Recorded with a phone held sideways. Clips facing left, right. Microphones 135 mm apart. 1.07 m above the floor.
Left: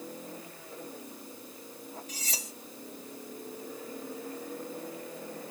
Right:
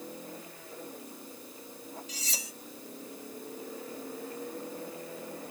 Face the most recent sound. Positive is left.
turn(degrees=50)  # may be behind; listen again after turning